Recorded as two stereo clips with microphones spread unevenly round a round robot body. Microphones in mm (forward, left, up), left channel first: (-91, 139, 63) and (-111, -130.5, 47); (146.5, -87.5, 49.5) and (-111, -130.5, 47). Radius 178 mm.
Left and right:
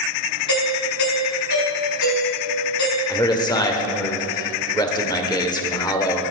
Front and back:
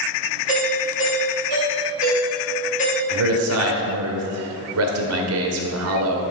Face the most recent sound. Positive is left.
turn(degrees=160)